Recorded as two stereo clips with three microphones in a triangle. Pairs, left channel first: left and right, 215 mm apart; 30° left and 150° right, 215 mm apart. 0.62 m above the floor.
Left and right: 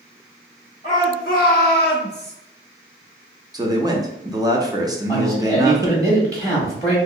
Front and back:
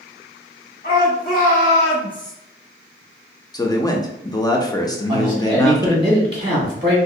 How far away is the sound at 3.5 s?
About 0.6 m.